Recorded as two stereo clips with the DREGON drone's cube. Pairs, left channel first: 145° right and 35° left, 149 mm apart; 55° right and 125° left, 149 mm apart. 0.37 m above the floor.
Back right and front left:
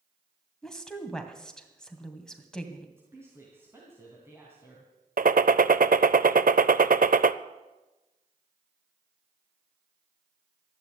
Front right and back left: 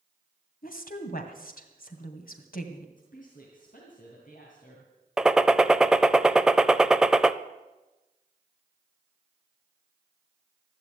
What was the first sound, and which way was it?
A woman speaking, 60° right.